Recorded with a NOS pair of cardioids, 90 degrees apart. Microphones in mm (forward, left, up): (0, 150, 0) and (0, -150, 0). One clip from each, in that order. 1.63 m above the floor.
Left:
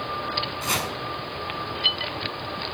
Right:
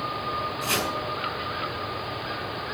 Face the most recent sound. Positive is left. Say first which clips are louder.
# right 2 dB
turn(degrees=30)